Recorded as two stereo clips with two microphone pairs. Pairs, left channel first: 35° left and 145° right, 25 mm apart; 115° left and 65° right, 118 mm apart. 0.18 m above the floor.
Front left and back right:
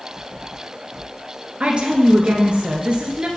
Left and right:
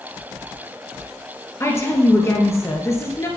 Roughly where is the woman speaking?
Behind.